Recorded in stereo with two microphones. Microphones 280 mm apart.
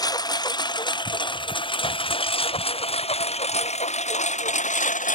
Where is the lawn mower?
15° left (ahead or behind); by 5.2 s 30° left (ahead or behind).